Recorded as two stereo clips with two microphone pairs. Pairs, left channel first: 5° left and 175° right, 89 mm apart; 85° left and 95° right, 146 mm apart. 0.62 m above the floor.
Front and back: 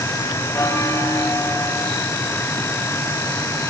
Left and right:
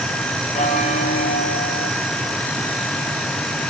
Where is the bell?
60° left, 4 m.